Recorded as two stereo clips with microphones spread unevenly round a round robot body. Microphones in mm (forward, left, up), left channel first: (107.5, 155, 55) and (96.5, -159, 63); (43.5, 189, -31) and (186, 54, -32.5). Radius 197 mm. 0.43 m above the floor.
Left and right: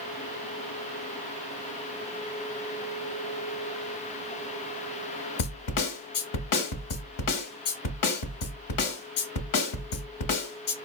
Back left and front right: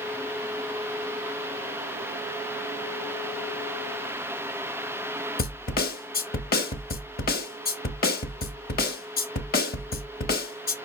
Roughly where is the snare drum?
Left.